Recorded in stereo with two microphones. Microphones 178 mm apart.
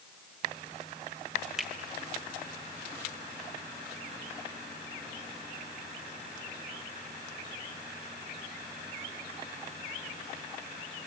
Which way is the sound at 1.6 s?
Centre (ahead or behind).